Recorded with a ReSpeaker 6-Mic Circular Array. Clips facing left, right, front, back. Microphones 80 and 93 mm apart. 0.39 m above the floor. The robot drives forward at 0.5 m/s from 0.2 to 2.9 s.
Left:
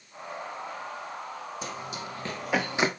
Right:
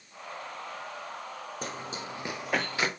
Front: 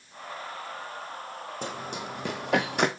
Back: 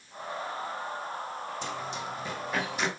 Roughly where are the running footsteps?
Ahead right.